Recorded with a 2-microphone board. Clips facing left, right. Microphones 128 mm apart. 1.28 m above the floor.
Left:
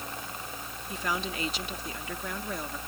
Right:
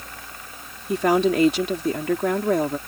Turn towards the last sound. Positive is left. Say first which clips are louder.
# right 15 dB
turn(degrees=-75)  # may be behind; listen again after turning